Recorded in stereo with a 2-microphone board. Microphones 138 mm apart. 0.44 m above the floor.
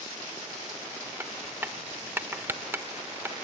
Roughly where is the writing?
Centre.